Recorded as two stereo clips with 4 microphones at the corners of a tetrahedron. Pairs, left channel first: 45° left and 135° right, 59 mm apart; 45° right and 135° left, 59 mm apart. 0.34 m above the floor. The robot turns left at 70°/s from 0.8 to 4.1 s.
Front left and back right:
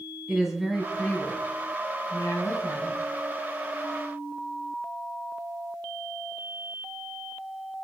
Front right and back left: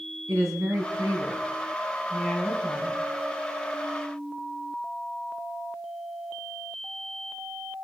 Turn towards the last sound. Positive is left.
turn(degrees=-90)